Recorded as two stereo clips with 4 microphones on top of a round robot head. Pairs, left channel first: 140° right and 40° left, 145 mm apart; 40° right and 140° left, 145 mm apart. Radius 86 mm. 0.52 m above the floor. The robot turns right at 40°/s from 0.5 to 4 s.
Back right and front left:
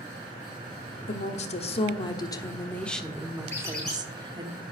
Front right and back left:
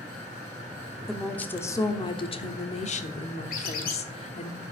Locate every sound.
1.1 s a woman speaking: 130° right, 1.2 m; by 4.5 s 15° right, 1.2 m
3.5 s a squeak: 70° right, 4 m; by 4.0 s 50° right, 4 m